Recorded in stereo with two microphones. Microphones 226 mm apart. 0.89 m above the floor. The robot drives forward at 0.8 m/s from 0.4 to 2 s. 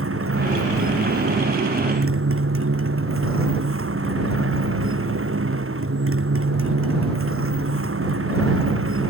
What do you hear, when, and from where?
0.0 s a motorcycle: 75° right (ahead or behind); by 9.1 s 70° right (ahead or behind)